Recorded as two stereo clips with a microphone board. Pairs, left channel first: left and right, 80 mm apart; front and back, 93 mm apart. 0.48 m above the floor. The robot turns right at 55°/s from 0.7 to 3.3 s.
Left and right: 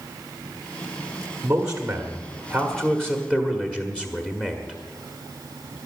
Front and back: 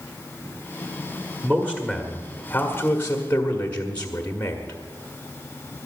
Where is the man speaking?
65° right, 1.3 m; by 4.8 s 40° left, 1.3 m.